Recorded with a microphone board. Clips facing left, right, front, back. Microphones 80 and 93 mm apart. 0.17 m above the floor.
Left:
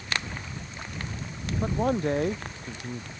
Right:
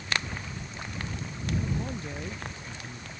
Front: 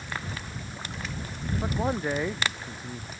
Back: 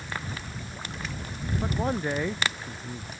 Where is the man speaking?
85° left.